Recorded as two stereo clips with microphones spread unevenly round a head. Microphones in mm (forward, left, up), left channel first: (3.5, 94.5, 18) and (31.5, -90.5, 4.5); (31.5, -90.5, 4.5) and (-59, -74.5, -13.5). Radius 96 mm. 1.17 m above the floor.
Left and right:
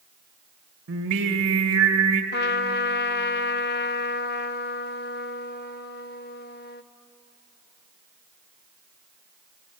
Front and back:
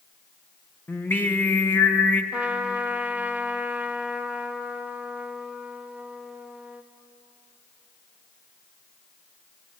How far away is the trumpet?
About 0.6 m.